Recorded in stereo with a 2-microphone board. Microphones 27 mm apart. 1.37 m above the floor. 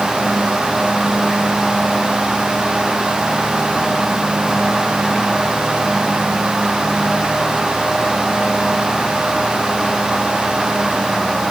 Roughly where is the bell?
No bell in this recording.